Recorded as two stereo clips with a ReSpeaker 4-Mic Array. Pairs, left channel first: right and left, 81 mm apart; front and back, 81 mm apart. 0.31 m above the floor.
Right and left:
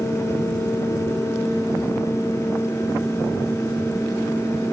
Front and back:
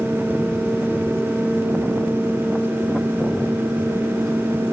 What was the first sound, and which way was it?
Only background noise.